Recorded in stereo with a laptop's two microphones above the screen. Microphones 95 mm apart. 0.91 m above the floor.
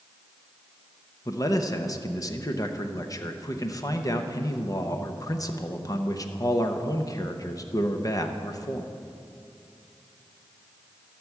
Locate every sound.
1.2 s a man speaking: 40° left (ahead or behind), 0.8 m